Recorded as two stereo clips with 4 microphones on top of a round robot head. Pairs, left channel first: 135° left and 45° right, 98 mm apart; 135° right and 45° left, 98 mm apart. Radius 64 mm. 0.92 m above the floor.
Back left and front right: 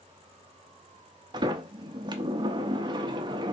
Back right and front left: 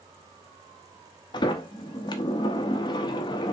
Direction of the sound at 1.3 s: 90° right.